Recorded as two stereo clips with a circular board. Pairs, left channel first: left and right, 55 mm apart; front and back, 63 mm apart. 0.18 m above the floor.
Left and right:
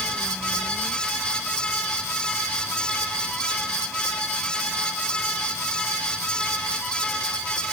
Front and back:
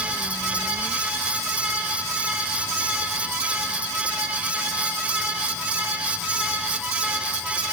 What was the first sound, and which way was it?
Only background noise.